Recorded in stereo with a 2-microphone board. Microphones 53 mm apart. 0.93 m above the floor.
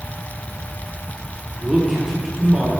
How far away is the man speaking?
About 1.5 m.